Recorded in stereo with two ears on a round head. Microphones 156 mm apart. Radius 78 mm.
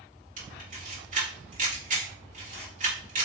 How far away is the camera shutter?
About 1.8 m.